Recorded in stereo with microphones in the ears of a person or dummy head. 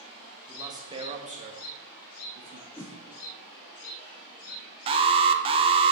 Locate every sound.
0.5 s a man speaking: 20° right (ahead or behind), 1.4 m; by 2.7 s 70° right (ahead or behind), 1.2 m
2.8 s a whoosh: 15° left (ahead or behind), 1.0 m
4.9 s an alarm: 35° right (ahead or behind), 0.6 m